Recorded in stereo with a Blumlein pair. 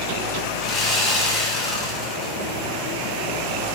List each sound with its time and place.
0.6 s sawing: 25° left, 0.9 m